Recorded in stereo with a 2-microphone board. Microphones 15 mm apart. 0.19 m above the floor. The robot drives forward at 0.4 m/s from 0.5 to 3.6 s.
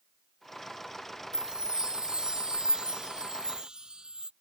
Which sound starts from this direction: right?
A chime, at 1.3 s.